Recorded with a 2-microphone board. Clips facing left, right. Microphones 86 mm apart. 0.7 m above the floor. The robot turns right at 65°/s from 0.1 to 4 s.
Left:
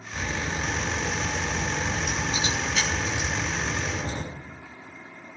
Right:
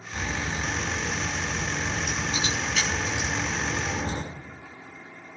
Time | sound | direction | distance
0.1 | a crack | straight ahead | 6 m